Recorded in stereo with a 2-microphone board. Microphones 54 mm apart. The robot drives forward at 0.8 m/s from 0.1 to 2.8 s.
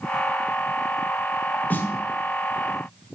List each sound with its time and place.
1.7 s a snare drum: 35° left (ahead or behind), 1.0 m; by 1.9 s 40° left (ahead or behind), 1.0 m